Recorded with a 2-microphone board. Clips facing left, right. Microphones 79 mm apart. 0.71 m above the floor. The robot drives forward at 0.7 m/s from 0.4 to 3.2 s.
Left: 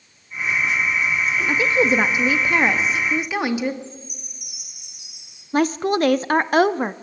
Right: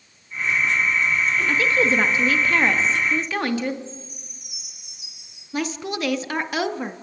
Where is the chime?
75° left (ahead or behind), 8 m.